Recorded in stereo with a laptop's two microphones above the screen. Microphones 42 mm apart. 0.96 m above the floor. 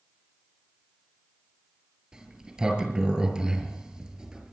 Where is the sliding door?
15° right (ahead or behind), 6 m.